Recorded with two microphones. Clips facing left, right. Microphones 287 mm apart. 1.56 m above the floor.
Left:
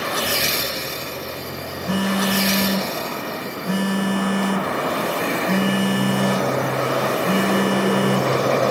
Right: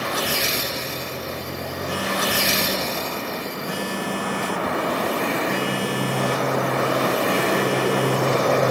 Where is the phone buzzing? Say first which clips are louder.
Left 6 dB; 45° left (ahead or behind), 1.0 m.